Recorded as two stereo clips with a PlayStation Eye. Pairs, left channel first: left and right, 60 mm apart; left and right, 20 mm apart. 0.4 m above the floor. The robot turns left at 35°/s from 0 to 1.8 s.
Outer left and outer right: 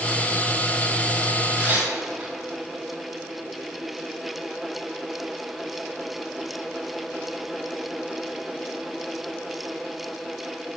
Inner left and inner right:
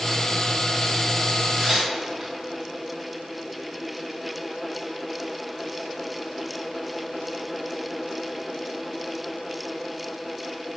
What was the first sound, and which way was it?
Tearing paper, 30° right (ahead or behind).